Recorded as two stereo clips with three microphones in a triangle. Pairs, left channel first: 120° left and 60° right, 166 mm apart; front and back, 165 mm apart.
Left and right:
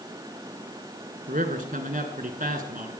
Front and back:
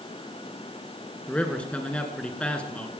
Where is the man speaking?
80° right, 2 m.